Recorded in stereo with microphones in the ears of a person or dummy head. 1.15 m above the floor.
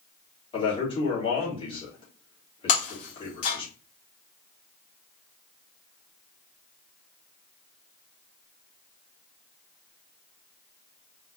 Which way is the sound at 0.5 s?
30° left (ahead or behind).